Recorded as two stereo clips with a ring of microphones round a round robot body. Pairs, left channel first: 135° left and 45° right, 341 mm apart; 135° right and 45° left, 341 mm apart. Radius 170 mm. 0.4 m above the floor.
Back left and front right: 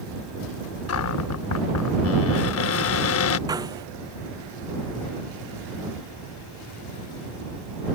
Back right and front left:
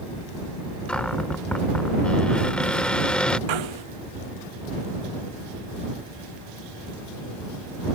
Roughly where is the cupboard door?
Behind left.